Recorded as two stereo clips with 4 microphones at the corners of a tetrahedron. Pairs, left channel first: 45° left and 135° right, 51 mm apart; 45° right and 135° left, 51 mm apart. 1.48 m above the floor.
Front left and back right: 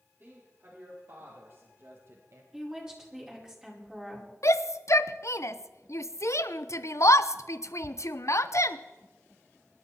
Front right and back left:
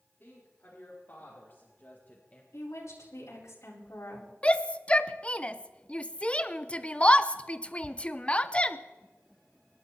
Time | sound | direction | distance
0.2 | a woman speaking | 85° right | 4.5 m
2.5 | a woman speaking | 55° right | 4.5 m
4.4 | a shout | 20° left | 0.7 m